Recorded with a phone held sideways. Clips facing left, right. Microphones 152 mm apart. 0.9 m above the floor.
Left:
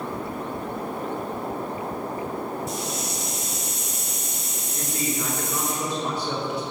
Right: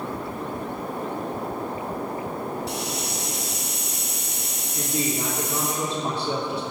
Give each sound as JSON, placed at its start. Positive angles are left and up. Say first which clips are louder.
{"t": 2.7, "sound": "a hiss", "louder": "even", "side_deg": -80, "distance_m": 3.0}
{"t": 4.7, "sound": "a man speaking", "louder": "right 2 dB", "side_deg": -20, "distance_m": 3.0}